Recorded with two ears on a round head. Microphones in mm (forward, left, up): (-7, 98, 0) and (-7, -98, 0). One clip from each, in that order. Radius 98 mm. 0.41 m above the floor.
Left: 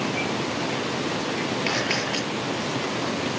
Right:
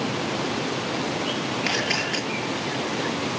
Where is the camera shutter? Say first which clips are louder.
Right 2 dB; 15° right (ahead or behind), 9 m.